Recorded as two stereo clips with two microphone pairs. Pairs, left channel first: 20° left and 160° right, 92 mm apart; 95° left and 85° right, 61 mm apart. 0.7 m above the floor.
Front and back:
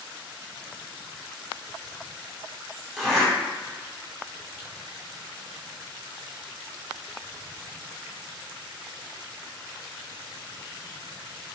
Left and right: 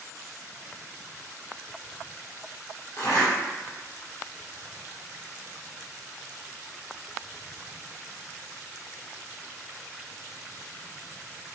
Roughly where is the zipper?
Left.